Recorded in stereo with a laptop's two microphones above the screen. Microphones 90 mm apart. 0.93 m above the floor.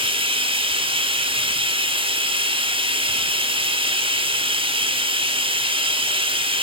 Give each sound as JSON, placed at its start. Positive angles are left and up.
{"t": 0.0, "sound": "running water", "side_deg": -85, "distance_m": 2.0}